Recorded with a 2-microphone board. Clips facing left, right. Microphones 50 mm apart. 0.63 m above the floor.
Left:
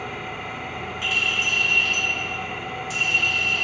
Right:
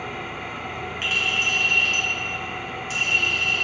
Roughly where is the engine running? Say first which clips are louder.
Even; centre.